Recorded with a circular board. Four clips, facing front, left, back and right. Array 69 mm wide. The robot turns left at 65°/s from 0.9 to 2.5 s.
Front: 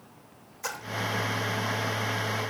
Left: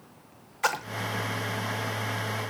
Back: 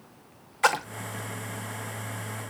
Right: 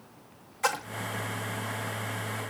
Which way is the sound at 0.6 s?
165° left.